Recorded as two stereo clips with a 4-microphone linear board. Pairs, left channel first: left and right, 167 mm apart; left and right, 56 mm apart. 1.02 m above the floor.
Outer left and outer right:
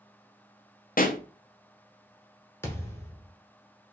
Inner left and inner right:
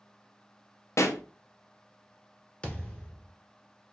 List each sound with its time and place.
1.0 s a pop: 55° left (ahead or behind), 0.5 m
2.6 s a thud: 15° left (ahead or behind), 1.1 m